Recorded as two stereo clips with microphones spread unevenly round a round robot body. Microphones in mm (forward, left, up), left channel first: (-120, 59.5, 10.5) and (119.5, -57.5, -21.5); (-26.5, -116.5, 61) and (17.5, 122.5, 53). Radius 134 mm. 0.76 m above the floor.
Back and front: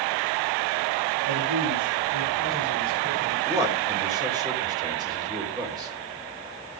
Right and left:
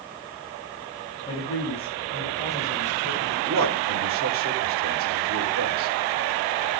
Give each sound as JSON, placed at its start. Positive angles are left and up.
{"t": 1.2, "sound": "a man speaking", "azimuth_deg": -30, "distance_m": 7.5}
{"t": 3.5, "sound": "a man speaking", "azimuth_deg": 50, "distance_m": 3.5}